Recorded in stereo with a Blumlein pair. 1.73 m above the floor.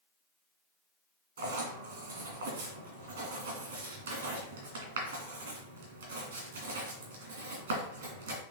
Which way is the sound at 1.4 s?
60° right.